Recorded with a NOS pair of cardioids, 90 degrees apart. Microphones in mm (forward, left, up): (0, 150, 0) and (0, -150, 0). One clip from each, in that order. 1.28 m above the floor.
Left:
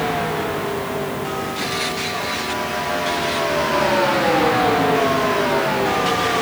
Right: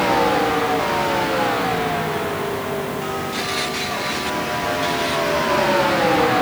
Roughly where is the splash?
No splash in this recording.